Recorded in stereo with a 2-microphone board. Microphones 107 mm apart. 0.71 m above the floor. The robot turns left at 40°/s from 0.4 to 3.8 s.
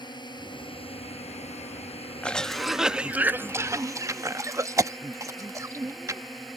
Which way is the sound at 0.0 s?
135° left.